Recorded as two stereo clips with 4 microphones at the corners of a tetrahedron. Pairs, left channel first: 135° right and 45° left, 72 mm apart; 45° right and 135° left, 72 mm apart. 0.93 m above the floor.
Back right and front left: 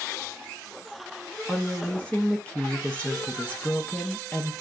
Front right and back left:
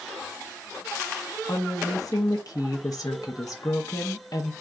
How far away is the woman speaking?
About 0.6 m.